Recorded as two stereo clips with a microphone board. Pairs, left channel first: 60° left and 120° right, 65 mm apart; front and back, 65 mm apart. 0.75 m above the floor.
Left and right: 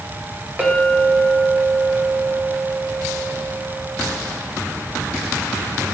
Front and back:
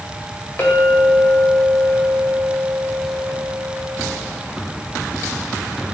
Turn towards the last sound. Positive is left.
turn(degrees=-60)